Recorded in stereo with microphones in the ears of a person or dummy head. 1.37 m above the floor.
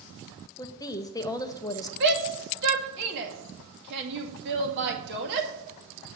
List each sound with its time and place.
0.6 s a woman speaking: 20° left (ahead or behind), 0.6 m
2.0 s a shout: 65° right (ahead or behind), 2 m